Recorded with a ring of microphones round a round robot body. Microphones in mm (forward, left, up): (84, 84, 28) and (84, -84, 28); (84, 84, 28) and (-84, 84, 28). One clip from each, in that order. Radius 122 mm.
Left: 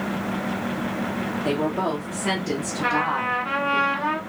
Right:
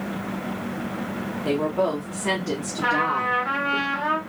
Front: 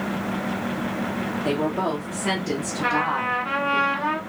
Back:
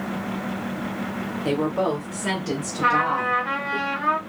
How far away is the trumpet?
About 1.7 m.